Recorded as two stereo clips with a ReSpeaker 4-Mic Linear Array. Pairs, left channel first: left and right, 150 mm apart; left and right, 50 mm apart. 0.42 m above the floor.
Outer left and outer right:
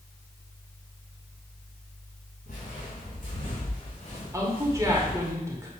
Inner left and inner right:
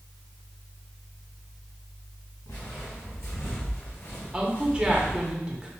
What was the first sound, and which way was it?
Footsteps, 75° left (ahead or behind).